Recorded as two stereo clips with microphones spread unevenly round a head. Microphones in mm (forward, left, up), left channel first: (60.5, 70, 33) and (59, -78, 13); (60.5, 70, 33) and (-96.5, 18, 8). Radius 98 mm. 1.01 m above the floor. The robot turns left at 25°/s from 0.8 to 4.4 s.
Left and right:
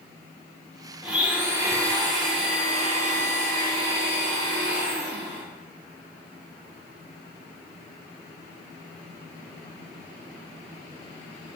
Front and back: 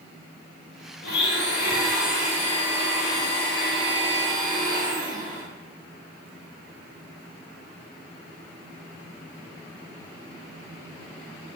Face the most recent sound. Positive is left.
turn(degrees=-85)